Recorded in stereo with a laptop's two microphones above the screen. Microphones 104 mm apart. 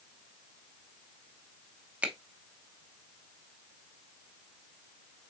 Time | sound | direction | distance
2.0 | a finger snap | 10° right (ahead or behind) | 0.7 m